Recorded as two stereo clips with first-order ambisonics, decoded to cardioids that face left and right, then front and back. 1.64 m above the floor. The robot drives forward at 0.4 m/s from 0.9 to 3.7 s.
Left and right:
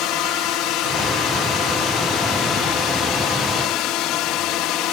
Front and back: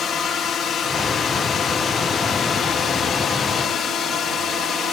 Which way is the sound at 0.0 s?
60° left.